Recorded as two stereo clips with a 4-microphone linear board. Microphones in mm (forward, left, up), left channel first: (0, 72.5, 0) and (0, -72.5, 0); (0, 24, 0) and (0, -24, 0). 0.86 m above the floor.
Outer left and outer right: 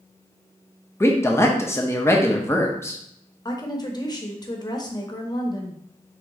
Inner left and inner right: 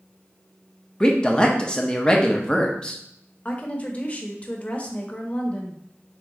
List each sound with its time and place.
1.0 s a man speaking: 20° left (ahead or behind), 0.7 m
3.5 s a woman speaking: 30° left (ahead or behind), 0.9 m